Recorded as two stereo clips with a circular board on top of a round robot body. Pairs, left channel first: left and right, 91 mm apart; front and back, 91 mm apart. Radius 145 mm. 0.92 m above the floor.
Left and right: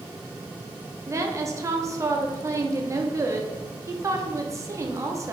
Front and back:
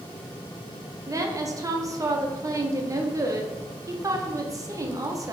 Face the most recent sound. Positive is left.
turn(degrees=-140)